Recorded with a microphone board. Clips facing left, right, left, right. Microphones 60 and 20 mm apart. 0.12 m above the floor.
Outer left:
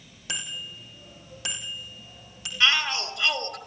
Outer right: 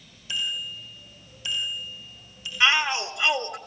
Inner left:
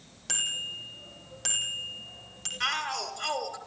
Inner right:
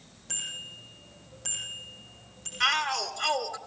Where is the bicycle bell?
60° left (ahead or behind), 4.5 m.